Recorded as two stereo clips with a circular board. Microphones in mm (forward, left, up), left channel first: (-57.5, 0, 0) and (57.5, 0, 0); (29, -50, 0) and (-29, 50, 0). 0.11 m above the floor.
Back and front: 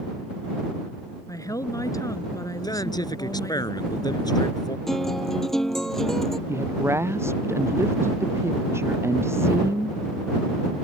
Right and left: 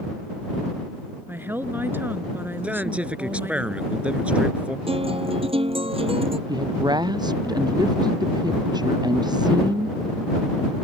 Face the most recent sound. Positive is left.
turn(degrees=65)